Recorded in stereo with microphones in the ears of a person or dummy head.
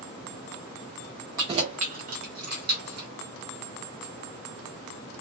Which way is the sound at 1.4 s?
15° right (ahead or behind).